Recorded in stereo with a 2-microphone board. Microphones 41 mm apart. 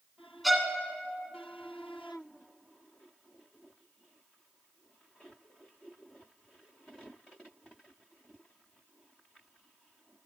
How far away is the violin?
About 1.3 m.